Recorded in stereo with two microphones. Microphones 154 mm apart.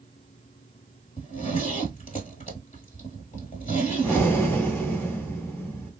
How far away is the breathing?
About 1.3 m.